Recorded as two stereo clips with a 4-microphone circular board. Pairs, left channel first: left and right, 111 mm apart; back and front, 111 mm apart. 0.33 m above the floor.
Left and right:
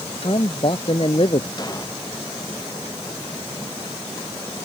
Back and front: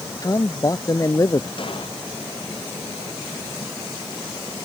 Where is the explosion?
140° left.